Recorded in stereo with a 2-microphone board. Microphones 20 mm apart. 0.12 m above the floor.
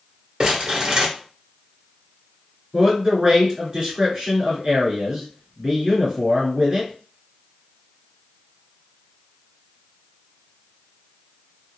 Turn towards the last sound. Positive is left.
turn(degrees=-30)  # may be behind; listen again after turning